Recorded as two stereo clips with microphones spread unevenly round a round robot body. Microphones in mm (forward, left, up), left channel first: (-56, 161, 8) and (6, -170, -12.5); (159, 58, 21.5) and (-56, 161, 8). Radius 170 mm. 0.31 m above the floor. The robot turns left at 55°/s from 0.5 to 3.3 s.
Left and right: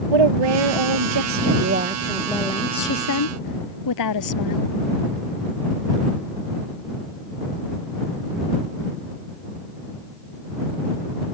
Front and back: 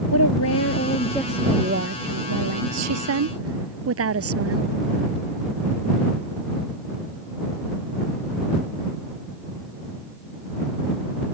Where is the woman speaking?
75° right; by 4.8 s 135° left.